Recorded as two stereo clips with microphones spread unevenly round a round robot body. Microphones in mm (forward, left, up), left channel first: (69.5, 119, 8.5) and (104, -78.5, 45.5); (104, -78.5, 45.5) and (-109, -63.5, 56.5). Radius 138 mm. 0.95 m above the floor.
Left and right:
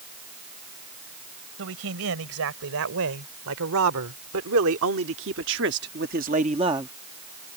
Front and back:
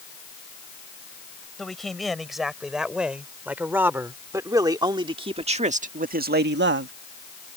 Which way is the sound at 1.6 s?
95° right.